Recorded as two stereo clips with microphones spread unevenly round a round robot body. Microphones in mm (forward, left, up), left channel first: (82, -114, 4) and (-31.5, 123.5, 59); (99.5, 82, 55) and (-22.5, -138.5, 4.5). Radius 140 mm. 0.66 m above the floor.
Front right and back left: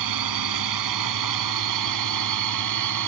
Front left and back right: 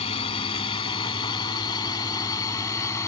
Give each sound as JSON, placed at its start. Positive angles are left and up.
{"t": 0.0, "sound": "a drone", "azimuth_deg": 135}